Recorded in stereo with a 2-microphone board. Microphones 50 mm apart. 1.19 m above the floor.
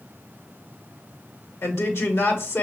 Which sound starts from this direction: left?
A woman speaking, at 1.6 s.